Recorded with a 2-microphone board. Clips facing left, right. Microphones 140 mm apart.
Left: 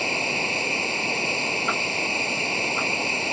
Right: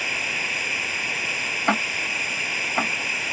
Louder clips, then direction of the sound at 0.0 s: Left 6 dB; 30° left (ahead or behind).